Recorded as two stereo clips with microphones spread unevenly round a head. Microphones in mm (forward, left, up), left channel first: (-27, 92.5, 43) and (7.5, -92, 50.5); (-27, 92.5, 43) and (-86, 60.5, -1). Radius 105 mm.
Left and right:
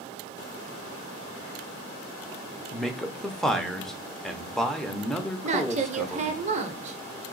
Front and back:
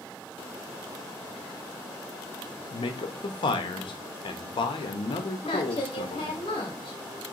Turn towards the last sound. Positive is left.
turn(degrees=-25)